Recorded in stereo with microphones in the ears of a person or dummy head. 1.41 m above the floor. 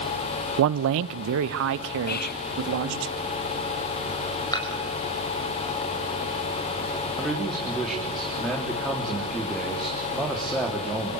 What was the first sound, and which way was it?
A man speaking, 75° right (ahead or behind).